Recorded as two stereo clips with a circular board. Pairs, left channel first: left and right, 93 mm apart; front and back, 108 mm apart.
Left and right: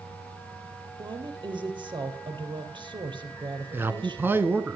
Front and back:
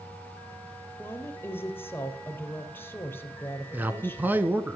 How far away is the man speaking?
About 1.3 m.